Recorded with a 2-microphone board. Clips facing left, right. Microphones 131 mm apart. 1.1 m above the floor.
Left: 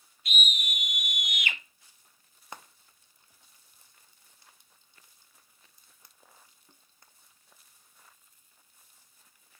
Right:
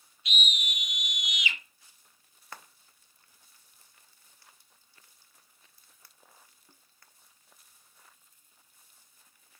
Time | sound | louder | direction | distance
0.2 | a scream | left 1 dB | 50° left (ahead or behind) | 1.5 m
2.5 | frying | left 2 dB | 20° left (ahead or behind) | 0.7 m